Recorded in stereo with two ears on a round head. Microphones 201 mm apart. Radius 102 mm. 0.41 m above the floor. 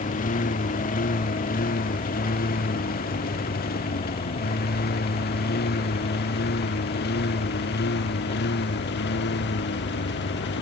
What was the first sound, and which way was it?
A lawn mower, 35° left (ahead or behind).